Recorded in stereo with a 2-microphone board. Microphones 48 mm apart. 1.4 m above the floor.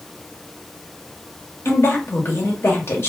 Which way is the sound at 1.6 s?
55° left (ahead or behind).